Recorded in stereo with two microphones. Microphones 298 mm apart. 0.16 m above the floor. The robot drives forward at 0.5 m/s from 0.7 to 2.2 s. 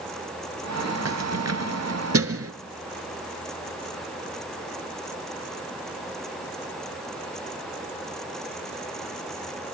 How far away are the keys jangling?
About 1.3 m.